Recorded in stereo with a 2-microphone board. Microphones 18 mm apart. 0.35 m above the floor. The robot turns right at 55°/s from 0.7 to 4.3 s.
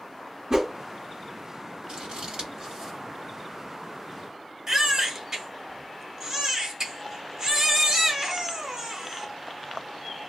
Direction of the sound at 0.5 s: 40° right (ahead or behind).